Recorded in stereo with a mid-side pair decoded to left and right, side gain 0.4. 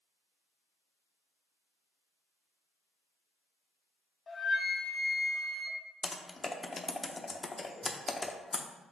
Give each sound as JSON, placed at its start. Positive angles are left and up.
{"t": 4.3, "sound": "a flute", "azimuth_deg": 40, "distance_m": 1.3}
{"t": 6.0, "sound": "typing on a keyboard", "azimuth_deg": 25, "distance_m": 0.6}